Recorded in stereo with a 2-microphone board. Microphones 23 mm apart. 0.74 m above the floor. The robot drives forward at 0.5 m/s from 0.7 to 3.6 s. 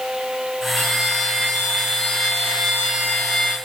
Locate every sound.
0.8 s a violin: 60° left (ahead or behind), 5 m; by 3.5 s 75° left (ahead or behind), 4.5 m